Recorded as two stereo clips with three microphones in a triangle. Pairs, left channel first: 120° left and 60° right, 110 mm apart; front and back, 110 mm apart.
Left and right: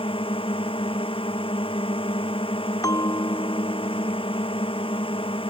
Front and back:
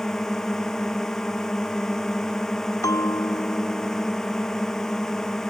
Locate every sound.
0.0 s a drone: 85° left
2.8 s a bell: 60° left